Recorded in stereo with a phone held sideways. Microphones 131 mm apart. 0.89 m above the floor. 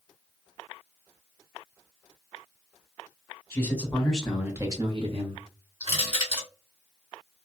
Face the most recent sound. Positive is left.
turn(degrees=-50)  # may be behind; listen again after turning